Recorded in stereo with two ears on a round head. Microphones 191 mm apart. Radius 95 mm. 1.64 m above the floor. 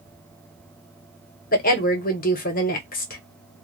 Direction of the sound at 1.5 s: 40° left (ahead or behind).